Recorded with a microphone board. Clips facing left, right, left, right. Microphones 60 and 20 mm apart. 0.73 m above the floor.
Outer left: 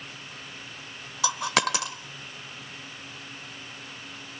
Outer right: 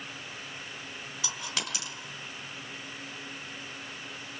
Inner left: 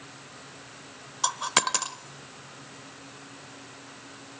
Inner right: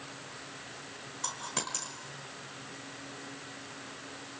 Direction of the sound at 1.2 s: 80° left.